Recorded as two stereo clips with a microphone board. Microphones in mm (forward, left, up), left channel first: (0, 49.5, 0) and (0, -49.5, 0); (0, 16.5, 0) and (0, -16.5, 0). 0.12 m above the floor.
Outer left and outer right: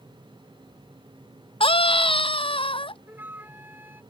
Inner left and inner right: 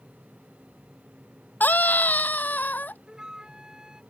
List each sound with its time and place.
1.6 s a scream: 65° left (ahead or behind)
3.1 s a flute: 20° right (ahead or behind)